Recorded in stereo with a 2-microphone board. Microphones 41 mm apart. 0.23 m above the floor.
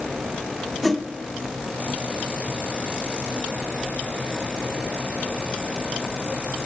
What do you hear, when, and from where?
0.8 s a whoosh: 5° left (ahead or behind), 0.9 m